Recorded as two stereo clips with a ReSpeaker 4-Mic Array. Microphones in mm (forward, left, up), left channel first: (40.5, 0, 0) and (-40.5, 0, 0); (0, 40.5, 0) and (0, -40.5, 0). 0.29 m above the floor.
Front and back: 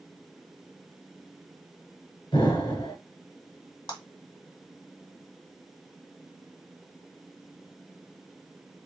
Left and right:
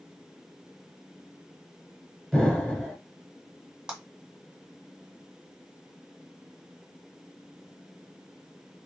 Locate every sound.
2.3 s an explosion: 5° left, 2.0 m
3.9 s a clap: 10° right, 1.8 m